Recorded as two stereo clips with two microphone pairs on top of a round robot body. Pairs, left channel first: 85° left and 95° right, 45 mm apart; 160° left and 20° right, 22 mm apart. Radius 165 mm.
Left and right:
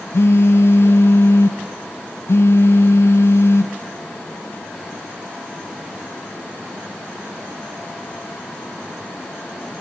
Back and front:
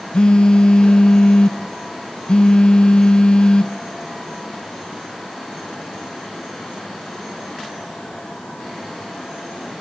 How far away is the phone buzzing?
About 0.7 m.